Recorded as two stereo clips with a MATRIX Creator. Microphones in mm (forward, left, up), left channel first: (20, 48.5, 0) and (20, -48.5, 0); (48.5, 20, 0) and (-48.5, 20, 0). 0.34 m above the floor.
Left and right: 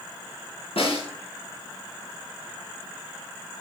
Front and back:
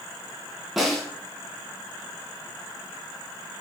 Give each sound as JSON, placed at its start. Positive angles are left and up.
{"t": 0.8, "sound": "a snare drum", "azimuth_deg": 95, "distance_m": 2.5}